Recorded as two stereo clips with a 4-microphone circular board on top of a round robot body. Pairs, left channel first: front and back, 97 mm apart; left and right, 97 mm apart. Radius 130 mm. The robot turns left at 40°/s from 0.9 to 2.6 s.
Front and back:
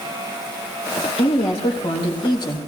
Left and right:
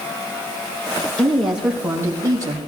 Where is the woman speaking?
10° left, 4 m; by 2.6 s 45° right, 4 m.